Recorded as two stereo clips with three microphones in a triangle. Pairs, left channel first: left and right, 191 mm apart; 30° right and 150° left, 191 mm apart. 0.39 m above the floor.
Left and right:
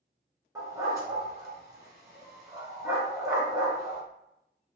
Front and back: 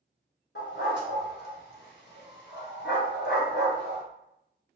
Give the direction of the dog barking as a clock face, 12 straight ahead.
1 o'clock.